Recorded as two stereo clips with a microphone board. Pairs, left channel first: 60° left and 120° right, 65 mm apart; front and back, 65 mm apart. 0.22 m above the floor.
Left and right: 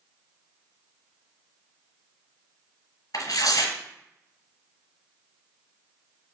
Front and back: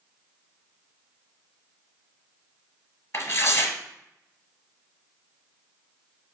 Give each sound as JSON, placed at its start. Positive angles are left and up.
{"t": 3.1, "sound": "tearing paper", "azimuth_deg": 45, "distance_m": 0.7}